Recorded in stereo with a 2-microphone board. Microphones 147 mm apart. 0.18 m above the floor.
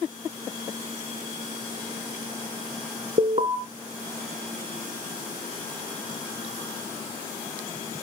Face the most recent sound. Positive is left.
turn(degrees=-45)  # may be behind; listen again after turning